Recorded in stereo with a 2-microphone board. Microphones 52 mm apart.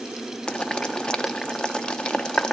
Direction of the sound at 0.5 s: 15° left (ahead or behind).